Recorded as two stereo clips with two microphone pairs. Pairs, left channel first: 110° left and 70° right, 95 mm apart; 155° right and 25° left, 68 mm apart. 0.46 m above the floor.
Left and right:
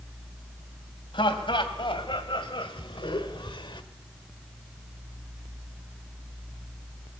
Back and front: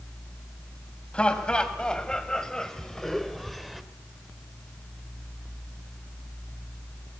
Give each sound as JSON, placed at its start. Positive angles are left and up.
{"t": 1.1, "sound": "laughter", "azimuth_deg": 130, "distance_m": 2.5}